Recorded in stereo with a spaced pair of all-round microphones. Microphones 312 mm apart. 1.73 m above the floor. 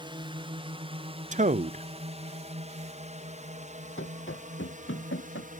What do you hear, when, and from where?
0.0 s a drone: 15° right (ahead or behind); by 5.6 s 25° right (ahead or behind)
1.3 s a man speaking: 25° right (ahead or behind)
4.0 s running footsteps: 40° left (ahead or behind)